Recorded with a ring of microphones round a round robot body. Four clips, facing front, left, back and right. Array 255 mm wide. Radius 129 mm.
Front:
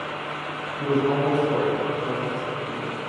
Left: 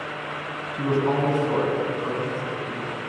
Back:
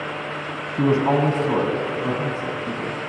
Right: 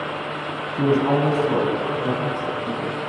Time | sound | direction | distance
0.7 | a man speaking | 160° right | 4 m